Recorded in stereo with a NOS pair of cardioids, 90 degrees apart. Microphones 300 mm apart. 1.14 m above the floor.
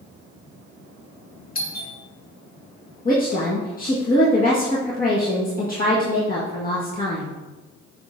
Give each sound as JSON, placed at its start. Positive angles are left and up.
{"t": 1.6, "sound": "a doorbell", "azimuth_deg": 30, "distance_m": 2.0}
{"t": 3.0, "sound": "a woman speaking", "azimuth_deg": 30, "distance_m": 1.5}